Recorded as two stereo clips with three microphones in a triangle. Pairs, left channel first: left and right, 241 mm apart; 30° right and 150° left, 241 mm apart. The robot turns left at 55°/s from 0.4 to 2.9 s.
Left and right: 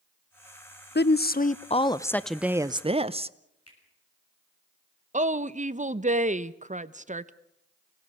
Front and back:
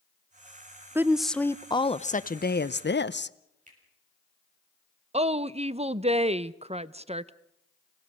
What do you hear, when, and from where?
0.9 s a woman speaking: 75° left, 0.6 m; by 3.4 s 30° right, 0.6 m
3.7 s a finger snap: 90° left, 6.5 m
5.1 s a woman speaking: 145° right, 0.6 m